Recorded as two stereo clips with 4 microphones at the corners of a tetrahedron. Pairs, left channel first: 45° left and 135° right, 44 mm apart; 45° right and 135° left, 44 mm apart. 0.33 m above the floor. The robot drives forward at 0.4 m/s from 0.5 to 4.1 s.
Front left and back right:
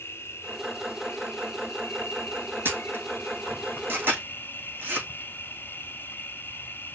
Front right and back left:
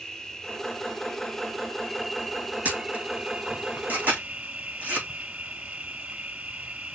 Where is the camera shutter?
170° right, 3 m; by 5.1 s 175° right, 3.5 m.